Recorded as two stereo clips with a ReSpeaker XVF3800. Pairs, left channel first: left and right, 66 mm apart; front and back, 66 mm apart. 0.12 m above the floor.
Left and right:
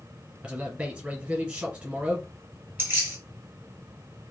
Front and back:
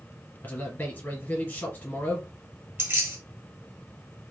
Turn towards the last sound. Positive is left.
turn(degrees=-140)